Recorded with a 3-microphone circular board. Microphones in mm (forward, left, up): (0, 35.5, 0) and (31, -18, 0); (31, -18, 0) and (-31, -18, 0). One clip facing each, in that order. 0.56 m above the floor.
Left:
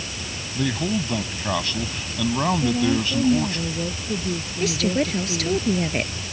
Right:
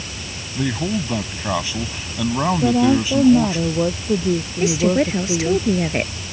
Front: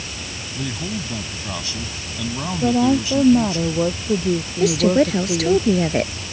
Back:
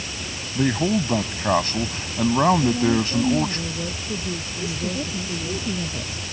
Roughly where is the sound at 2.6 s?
Ahead right.